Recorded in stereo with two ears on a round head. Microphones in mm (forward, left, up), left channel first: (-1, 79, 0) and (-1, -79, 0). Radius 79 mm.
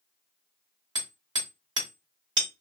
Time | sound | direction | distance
0.9 | hammering | 25° right (ahead or behind) | 2.5 m